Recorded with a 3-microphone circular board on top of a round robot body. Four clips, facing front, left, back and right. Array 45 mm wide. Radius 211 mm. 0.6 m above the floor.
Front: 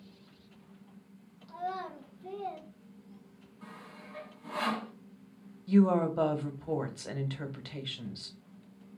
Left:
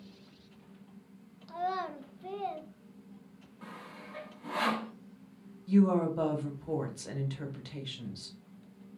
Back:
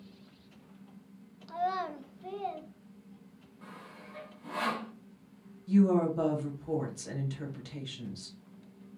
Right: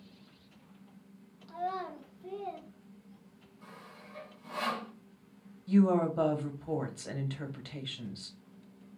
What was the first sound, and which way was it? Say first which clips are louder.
A child speaking: left 2 dB, back 5 dB; 150° left.